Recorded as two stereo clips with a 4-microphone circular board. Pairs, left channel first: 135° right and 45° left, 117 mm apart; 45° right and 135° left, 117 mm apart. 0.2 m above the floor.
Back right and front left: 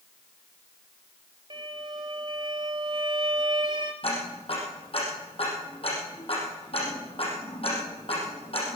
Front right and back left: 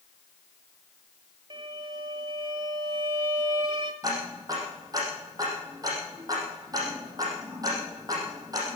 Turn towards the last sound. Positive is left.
turn(degrees=-170)